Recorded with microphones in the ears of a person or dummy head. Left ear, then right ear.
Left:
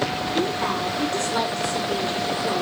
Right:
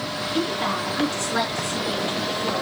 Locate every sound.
0.3 s a woman speaking: 40° right (ahead or behind), 5 m